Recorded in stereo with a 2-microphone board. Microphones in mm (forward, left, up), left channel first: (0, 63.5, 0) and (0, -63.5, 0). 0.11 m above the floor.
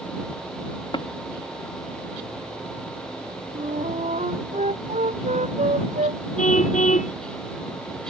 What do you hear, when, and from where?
0.9 s tapping: 40° left (ahead or behind)
3.5 s a flute: 70° right (ahead or behind)
6.4 s a car horn: 75° left (ahead or behind)